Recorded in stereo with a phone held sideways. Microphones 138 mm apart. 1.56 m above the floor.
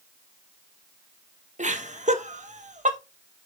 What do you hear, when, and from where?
1.6 s laughter: 65° right (ahead or behind), 1.8 m